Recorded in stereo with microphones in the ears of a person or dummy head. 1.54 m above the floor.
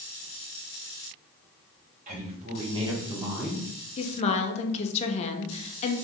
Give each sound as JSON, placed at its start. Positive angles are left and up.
{"t": 2.1, "sound": "a woman speaking", "side_deg": -40, "distance_m": 1.3}
{"t": 4.0, "sound": "a woman speaking", "side_deg": 35, "distance_m": 0.6}